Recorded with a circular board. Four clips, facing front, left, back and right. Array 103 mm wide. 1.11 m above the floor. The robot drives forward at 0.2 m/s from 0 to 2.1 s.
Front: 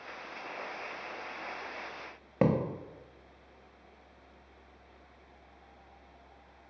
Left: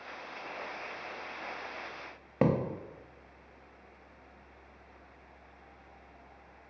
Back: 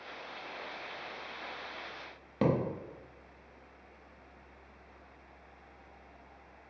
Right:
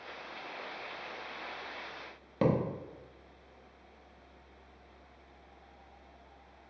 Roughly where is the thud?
Ahead left.